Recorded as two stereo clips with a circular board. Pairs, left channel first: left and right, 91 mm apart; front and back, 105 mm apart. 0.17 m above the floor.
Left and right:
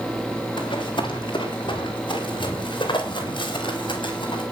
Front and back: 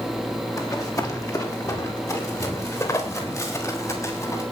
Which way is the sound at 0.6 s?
55° left.